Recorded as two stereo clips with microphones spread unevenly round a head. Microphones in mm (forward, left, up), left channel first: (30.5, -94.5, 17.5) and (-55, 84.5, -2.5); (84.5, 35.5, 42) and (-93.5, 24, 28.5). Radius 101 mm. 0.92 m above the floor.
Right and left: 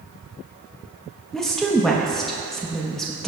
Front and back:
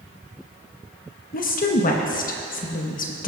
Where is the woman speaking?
30° left, 1.0 m.